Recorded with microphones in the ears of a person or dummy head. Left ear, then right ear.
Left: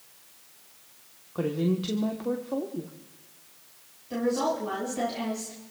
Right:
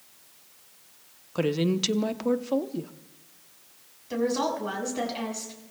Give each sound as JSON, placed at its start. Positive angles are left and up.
{"t": 1.4, "sound": "a woman speaking", "side_deg": -75, "distance_m": 0.9}
{"t": 4.1, "sound": "a woman speaking", "side_deg": -45, "distance_m": 6.5}